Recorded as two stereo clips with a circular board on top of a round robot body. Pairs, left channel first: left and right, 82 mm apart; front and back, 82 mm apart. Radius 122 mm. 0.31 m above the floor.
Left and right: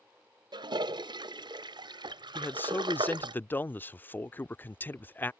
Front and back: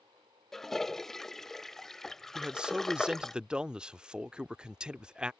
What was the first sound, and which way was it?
A toilet flushing, 85° right.